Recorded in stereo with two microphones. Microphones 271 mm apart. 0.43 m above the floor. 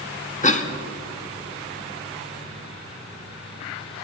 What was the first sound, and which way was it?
A cough, 25° left (ahead or behind).